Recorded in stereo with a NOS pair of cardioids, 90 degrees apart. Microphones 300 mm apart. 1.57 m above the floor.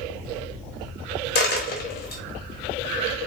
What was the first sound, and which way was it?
A dropped coin, 35° left.